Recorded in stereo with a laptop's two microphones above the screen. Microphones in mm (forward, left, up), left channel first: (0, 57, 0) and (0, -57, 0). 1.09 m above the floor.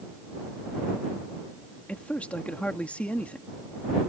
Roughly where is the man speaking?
Centre.